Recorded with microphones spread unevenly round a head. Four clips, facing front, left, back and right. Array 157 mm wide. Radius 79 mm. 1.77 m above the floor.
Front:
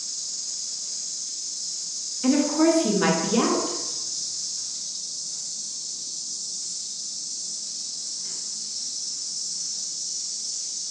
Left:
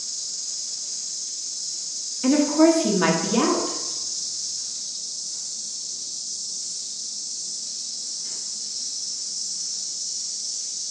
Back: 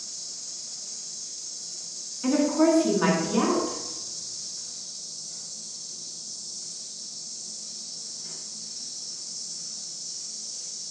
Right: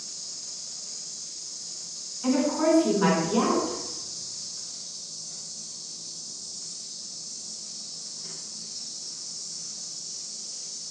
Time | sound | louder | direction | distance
0.0 | an insect | left 2 dB, front 2 dB | 130° right | 2.0 m
2.2 | a woman speaking | left 6 dB, front 1 dB | 65° left | 1.1 m